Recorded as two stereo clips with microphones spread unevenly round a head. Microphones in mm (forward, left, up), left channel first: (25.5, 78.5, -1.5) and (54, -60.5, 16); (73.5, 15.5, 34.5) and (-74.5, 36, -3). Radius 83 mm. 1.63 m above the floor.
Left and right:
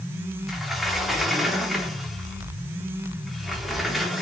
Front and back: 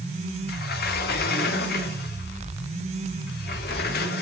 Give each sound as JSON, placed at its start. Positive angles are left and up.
{"t": 0.5, "sound": "a sliding door", "azimuth_deg": 10, "distance_m": 3.5}